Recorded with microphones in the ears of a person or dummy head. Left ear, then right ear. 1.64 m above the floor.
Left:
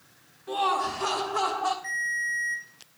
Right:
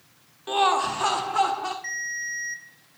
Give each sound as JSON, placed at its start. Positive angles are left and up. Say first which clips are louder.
{"t": 0.5, "sound": "laughter", "louder": "right 4 dB", "side_deg": -45, "distance_m": 0.6}
{"t": 1.8, "sound": "a ringtone", "louder": "left 2 dB", "side_deg": -40, "distance_m": 2.0}